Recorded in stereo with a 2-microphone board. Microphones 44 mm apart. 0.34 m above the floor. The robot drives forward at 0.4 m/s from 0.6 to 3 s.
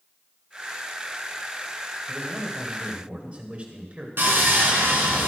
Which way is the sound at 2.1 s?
30° right (ahead or behind).